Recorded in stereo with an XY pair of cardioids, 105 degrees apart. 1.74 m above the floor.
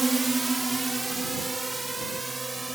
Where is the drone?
20° right; by 2.8 s 15° right.